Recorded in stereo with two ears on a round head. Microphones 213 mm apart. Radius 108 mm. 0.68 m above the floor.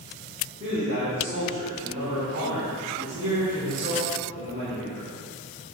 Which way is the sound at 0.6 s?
30° right (ahead or behind).